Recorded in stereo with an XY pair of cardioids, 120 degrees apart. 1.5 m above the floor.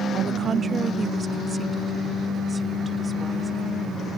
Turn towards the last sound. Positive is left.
turn(degrees=-15)